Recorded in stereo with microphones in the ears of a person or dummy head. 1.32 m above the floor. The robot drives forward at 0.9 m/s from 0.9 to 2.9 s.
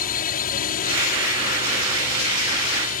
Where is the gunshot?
I don't hear a gunshot.